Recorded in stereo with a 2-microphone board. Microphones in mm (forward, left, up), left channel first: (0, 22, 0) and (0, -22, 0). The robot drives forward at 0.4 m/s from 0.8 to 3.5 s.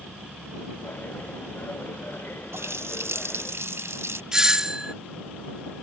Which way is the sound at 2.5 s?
85° right.